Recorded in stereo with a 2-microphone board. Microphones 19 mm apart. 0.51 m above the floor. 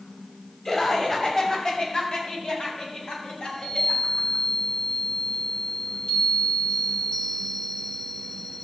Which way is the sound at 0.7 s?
25° left (ahead or behind).